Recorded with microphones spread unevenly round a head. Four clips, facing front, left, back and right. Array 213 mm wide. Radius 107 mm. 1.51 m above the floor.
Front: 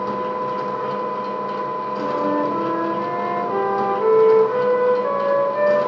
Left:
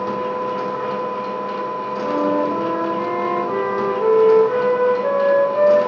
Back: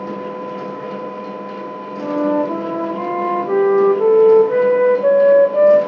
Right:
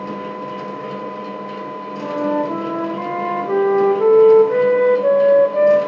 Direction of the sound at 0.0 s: 50° left.